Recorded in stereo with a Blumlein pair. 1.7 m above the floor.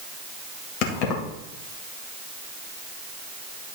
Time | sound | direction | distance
0.8 | keys jangling | 40° left | 1.9 m